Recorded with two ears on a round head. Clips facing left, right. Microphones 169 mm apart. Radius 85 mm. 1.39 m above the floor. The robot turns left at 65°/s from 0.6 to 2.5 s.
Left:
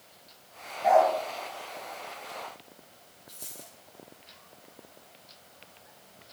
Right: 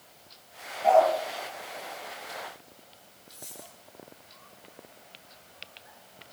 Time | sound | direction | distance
0.8 | a dog barking | 5° left (ahead or behind) | 6 m
3.3 | a dropped coin | 75° left (ahead or behind) | 7 m